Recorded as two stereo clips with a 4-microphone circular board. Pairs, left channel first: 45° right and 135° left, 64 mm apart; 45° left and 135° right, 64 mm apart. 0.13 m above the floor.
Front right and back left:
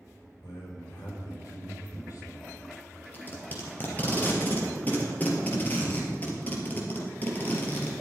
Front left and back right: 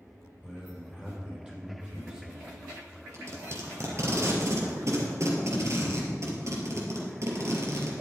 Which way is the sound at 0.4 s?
65° right.